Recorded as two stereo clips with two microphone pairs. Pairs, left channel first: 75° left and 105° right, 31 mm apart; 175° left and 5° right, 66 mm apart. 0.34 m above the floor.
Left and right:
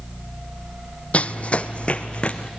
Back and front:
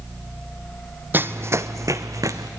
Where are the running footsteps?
45° left, 0.5 m; by 2.5 s 20° left, 1.2 m.